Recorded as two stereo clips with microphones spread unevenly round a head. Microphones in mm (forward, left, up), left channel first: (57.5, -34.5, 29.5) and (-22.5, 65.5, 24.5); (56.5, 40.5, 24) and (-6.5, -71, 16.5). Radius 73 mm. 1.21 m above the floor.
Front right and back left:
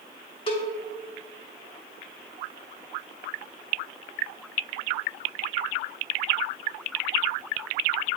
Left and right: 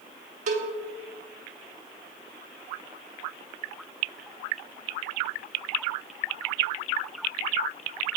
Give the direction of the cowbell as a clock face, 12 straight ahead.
3 o'clock.